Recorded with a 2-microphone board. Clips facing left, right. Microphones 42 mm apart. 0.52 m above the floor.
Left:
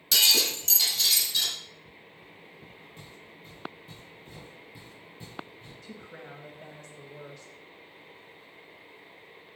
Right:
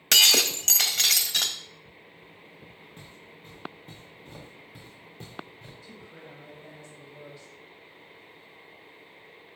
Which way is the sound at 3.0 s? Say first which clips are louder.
Even; 45° right (ahead or behind).